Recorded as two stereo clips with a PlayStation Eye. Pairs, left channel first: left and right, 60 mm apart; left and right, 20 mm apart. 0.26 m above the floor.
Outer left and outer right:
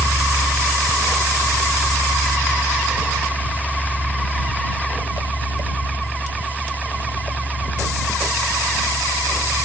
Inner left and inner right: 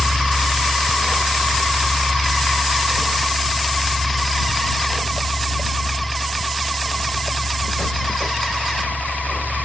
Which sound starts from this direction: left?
A helicopter, at 0.0 s.